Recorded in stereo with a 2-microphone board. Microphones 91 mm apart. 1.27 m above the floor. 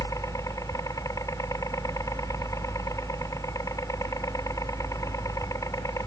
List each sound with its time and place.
0.0 s a helicopter: 35° left (ahead or behind)